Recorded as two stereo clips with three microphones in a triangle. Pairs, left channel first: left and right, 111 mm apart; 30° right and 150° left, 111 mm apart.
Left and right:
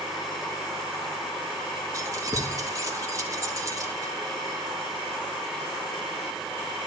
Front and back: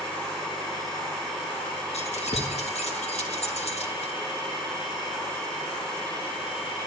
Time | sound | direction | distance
1.9 | keys jangling | 30° right | 2.0 m